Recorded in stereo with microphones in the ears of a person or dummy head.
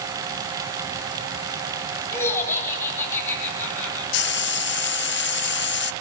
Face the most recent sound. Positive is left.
turn(degrees=65)  # may be behind; listen again after turning